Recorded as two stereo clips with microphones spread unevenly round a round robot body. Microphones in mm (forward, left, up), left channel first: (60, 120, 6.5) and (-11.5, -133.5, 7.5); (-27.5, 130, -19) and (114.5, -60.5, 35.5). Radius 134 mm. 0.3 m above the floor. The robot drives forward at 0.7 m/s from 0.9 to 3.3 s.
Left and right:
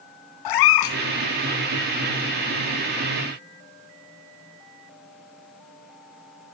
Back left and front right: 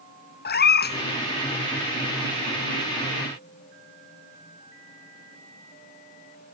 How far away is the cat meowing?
About 0.7 m.